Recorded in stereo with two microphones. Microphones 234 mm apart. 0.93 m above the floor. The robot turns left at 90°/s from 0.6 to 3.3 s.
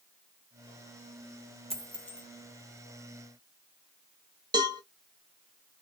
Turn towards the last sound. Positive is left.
turn(degrees=-20)  # may be behind; listen again after turning